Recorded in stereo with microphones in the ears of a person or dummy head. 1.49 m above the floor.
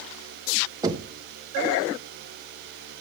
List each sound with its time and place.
0.8 s knocking: 25° right (ahead or behind), 1.2 m